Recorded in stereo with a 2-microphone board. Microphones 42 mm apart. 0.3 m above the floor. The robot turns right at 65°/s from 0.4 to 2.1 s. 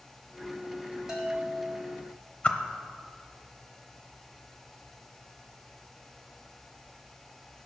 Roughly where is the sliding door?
I don't hear a sliding door.